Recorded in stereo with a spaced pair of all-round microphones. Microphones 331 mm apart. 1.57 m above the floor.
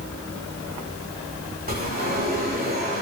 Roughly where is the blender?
I don't hear a blender.